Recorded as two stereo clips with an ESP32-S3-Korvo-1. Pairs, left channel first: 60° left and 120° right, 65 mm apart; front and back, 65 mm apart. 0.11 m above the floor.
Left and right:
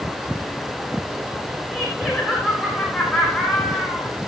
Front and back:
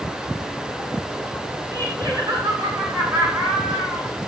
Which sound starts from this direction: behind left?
Laughter, at 1.7 s.